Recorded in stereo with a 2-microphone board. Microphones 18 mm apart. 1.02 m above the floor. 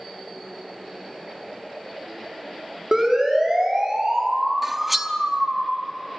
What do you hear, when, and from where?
2.9 s a siren: 35° right (ahead or behind), 3.5 m; by 5.6 s 55° right (ahead or behind), 4.5 m
4.6 s cutlery clinking: 10° right (ahead or behind), 0.8 m